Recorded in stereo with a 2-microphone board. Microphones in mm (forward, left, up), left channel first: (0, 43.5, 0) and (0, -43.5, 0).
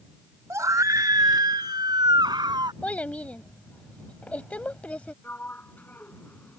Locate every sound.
0.5 s a scream: 35° right (ahead or behind); by 2.7 s 50° right (ahead or behind)
2.8 s a child speaking: 15° left (ahead or behind)
5.2 s a sliding door: 20° left (ahead or behind)